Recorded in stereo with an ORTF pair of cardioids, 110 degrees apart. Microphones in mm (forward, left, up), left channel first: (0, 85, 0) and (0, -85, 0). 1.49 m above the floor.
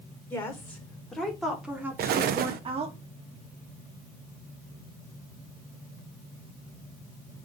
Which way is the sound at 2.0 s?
65° right.